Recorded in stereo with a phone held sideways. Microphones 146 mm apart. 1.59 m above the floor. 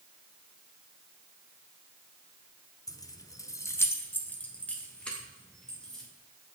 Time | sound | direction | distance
2.9 | keys jangling | 25° left (ahead or behind) | 0.5 m